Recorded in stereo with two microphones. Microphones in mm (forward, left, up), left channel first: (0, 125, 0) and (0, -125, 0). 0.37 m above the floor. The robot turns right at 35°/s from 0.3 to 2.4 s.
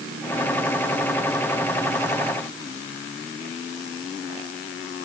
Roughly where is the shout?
No shout in this recording.